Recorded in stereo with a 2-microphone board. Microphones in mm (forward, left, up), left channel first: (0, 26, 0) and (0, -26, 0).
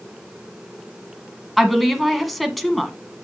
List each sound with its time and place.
1.6 s a woman speaking: centre (ahead or behind), 1.4 m